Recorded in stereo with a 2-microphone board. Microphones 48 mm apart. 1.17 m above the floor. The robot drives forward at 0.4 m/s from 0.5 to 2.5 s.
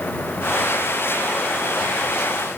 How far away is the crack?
No crack in this recording.